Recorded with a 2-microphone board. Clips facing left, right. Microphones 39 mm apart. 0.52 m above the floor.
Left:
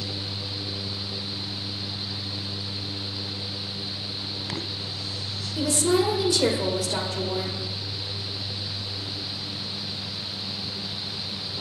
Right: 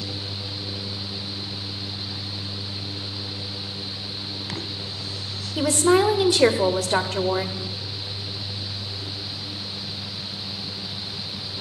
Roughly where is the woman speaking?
Right.